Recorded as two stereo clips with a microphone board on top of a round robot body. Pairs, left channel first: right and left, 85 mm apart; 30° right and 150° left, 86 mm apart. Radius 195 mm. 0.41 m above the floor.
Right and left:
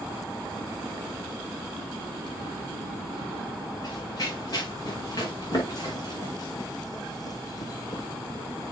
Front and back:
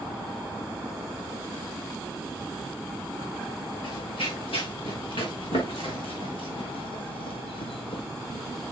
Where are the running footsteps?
50° right, 5 m; by 8.0 s 45° right, 1.2 m.